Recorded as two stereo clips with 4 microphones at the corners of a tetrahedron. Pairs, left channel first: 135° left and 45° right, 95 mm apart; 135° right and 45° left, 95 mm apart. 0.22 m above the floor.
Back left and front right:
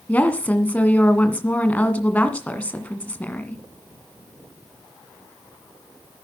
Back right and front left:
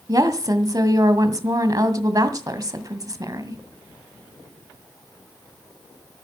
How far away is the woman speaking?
About 1.9 m.